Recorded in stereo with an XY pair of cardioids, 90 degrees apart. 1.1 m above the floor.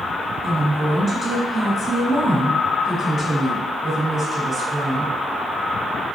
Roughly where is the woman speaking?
Ahead right.